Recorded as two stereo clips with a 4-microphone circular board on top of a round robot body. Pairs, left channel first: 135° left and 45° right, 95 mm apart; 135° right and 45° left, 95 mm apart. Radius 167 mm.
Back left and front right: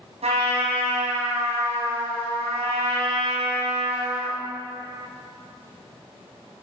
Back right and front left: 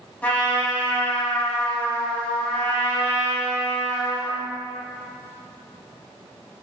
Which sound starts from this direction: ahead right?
A trumpet, at 0.2 s.